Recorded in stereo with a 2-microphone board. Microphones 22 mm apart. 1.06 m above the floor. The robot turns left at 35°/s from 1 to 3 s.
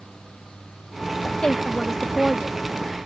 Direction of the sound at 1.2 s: 40° left.